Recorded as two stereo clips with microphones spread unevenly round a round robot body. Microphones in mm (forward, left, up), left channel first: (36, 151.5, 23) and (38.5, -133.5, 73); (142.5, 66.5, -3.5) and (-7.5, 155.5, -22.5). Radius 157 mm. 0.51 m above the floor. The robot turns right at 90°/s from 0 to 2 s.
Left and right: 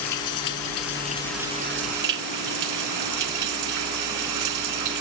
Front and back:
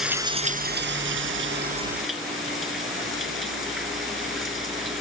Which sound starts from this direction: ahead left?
Running water, at 0.0 s.